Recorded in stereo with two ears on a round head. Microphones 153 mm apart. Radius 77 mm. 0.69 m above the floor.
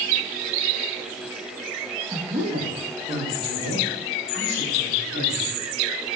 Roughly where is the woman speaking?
Right.